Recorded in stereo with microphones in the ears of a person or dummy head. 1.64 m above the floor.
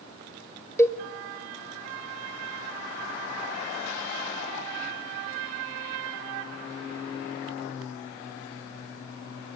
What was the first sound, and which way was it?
A cowbell, 20° left (ahead or behind).